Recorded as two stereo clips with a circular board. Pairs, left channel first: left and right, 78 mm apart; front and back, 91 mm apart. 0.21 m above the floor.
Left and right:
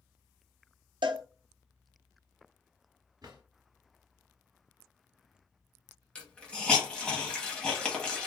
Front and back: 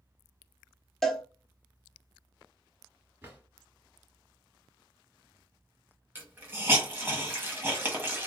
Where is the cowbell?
85° right, 0.7 m.